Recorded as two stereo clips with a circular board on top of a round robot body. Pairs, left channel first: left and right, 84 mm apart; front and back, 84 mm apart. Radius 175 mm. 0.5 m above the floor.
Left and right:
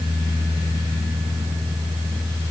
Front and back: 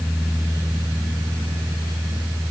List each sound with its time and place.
Only background noise.